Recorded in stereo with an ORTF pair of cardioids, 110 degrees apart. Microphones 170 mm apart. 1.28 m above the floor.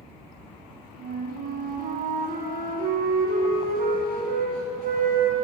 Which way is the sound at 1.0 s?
55° right.